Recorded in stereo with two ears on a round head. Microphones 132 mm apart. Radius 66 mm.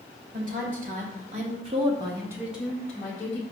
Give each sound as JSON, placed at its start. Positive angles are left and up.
{"t": 0.3, "sound": "a woman speaking", "side_deg": -60, "distance_m": 1.3}